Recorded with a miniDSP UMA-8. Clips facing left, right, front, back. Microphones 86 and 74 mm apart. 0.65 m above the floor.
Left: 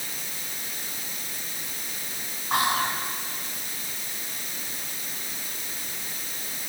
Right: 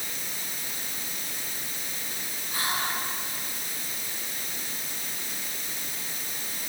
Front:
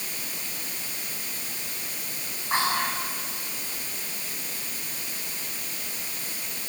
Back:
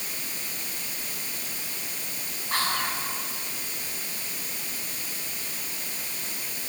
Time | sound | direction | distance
2.5 | whispering | 70° left | 5 m